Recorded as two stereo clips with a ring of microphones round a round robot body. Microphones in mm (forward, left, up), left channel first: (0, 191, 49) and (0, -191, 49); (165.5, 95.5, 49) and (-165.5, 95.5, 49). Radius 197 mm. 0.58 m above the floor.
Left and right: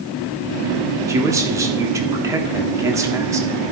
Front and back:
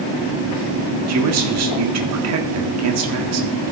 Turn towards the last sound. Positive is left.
turn(degrees=-170)